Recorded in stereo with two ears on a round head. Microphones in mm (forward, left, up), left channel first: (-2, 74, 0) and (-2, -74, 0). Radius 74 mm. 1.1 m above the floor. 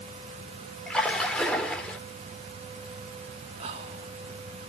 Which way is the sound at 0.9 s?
5° left (ahead or behind).